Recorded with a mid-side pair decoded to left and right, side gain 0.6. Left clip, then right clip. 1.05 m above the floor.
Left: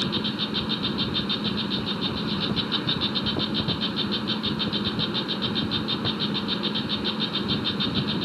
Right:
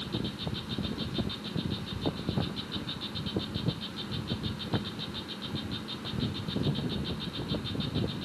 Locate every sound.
0.0 s an insect: 55° left